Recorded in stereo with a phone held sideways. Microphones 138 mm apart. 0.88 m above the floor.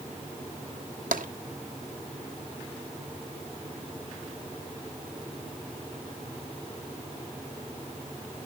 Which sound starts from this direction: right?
Tapping, at 1.1 s.